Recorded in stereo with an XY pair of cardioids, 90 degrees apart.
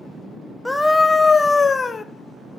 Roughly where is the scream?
Ahead.